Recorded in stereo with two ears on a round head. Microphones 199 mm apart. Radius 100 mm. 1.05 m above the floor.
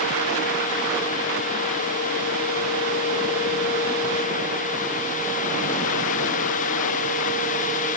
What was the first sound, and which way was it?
Only background noise.